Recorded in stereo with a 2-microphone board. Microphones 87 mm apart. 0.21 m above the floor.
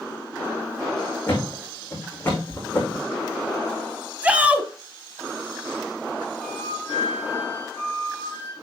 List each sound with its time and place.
1.3 s a thud: 20° left (ahead or behind), 5 m
4.2 s a shout: 15° right (ahead or behind), 1.1 m
6.4 s a flute: 25° left (ahead or behind), 3 m